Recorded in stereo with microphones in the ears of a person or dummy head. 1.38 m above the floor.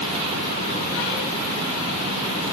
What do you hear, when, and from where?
Only background noise.